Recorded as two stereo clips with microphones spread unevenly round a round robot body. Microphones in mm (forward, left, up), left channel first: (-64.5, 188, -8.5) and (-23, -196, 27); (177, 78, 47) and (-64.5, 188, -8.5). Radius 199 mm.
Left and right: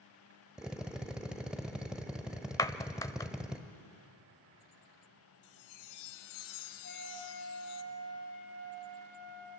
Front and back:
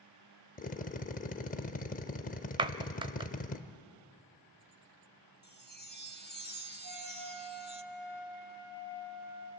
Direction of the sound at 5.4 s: 90° left.